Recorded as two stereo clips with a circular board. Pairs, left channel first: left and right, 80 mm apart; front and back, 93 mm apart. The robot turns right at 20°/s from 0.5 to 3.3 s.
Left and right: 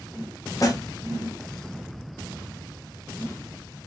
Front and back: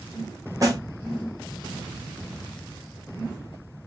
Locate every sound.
0.6 s a snare drum: 130° left, 0.9 m; by 0.8 s 135° left, 0.9 m